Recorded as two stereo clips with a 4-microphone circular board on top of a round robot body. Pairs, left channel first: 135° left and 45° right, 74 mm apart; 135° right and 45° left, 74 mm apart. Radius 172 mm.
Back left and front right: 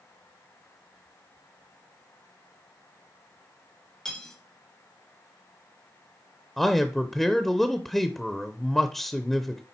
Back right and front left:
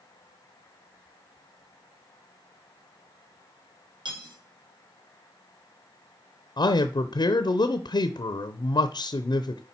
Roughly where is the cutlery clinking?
Ahead left.